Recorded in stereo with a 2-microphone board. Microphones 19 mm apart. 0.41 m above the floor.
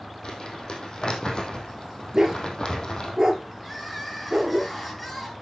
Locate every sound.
0.2 s crumpling: 45° left (ahead or behind), 3 m
2.1 s a dog barking: 30° right (ahead or behind), 2.5 m
3.6 s crying: centre (ahead or behind), 7 m